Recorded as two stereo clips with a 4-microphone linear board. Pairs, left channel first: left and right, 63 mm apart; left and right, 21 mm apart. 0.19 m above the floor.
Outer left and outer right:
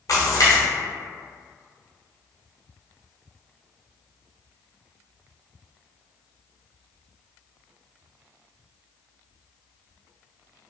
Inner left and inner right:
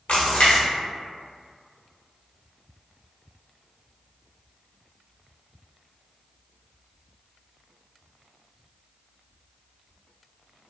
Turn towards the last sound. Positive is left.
turn(degrees=65)  # may be behind; listen again after turning